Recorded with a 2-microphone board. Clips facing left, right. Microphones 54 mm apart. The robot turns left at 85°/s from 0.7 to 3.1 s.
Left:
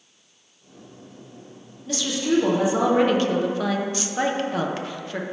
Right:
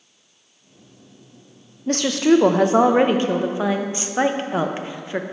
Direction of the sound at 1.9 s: 45° right.